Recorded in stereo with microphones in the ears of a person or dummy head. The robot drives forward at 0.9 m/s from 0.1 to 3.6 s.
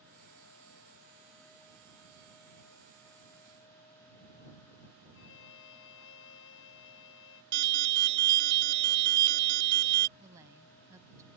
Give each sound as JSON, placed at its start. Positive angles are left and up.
{"t": 5.1, "sound": "a violin", "side_deg": 75}
{"t": 7.5, "sound": "an alarm", "side_deg": -65}
{"t": 10.2, "sound": "a woman speaking", "side_deg": -20}